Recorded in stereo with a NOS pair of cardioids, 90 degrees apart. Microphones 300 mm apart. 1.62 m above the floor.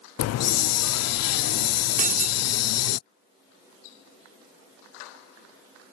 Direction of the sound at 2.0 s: 30° right.